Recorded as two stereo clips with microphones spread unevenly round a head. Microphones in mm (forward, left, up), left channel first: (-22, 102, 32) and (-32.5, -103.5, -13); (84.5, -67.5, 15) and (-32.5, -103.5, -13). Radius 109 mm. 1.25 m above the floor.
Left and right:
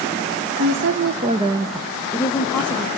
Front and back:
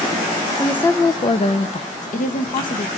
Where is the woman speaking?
70° right, 1.0 m; by 2.9 s 15° left, 1.7 m.